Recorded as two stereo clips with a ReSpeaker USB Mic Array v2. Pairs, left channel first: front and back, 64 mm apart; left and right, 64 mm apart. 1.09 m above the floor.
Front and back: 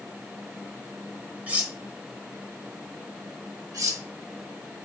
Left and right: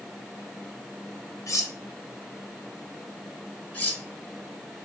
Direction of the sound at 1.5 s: 115° left.